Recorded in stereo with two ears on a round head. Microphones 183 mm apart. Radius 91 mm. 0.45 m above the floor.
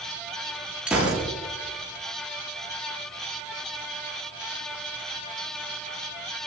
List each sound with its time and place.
0.9 s a gunshot: 5° right (ahead or behind), 9 m